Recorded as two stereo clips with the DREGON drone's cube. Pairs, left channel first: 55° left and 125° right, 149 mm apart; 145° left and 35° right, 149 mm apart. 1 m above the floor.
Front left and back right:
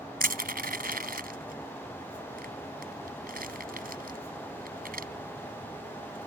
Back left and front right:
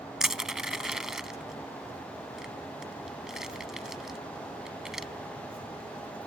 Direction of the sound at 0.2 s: 120° right.